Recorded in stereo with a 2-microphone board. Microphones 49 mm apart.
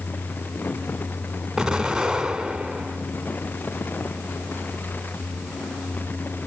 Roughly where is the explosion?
Centre.